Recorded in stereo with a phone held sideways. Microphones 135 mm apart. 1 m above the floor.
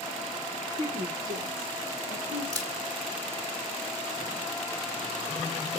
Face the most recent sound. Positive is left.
turn(degrees=-30)  # may be behind; listen again after turning